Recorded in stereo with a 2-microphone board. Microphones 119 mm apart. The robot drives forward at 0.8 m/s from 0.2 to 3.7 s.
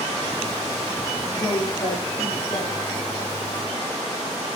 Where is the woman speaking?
30° left (ahead or behind), 7.5 m; by 2.8 s 40° left (ahead or behind), 6.5 m.